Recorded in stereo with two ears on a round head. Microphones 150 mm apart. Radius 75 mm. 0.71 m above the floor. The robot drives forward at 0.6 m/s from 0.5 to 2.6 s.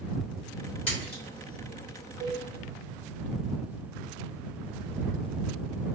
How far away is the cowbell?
About 2 m.